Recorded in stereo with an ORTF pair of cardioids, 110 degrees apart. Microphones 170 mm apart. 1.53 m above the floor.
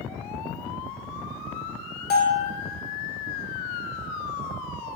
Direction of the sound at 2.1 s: 65° left.